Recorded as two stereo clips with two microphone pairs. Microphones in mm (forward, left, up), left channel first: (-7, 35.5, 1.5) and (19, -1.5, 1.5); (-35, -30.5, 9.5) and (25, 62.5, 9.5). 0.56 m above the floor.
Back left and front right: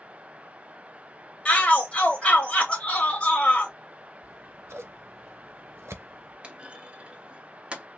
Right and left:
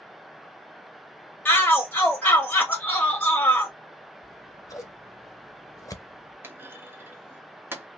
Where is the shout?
175° left, 0.7 m.